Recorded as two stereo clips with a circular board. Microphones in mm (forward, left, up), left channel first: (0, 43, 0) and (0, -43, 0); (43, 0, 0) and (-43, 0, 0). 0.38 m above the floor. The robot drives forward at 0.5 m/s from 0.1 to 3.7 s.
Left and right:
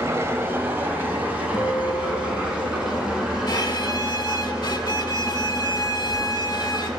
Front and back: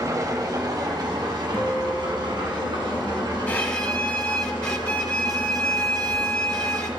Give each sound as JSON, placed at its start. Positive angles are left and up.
{"t": 0.0, "sound": "an engine running", "azimuth_deg": -140, "distance_m": 0.9}
{"t": 1.5, "sound": "a guitar", "azimuth_deg": 60, "distance_m": 1.6}
{"t": 3.5, "sound": "a violin", "azimuth_deg": 70, "distance_m": 0.9}